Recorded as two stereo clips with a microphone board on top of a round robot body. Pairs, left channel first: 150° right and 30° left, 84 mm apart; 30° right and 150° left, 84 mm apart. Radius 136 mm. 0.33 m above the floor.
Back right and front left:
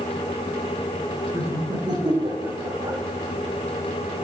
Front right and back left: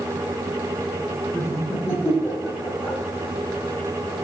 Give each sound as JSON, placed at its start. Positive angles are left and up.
{"t": 1.3, "sound": "laughter", "azimuth_deg": 5, "distance_m": 2.0}